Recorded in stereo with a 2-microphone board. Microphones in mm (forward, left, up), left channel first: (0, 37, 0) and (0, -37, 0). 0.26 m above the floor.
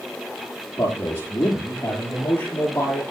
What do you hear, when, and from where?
0.8 s a man speaking: 30° left (ahead or behind), 6 m; by 3.0 s 25° left (ahead or behind), 8 m